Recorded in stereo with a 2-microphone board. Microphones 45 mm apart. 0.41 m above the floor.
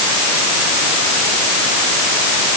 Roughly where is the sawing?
No sawing in this recording.